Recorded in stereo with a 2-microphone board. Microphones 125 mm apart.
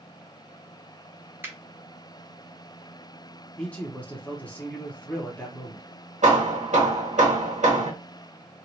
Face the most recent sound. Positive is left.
turn(degrees=-75)  # may be behind; listen again after turning